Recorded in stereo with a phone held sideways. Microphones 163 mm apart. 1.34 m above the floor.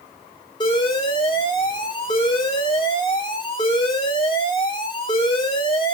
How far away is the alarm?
About 3 m.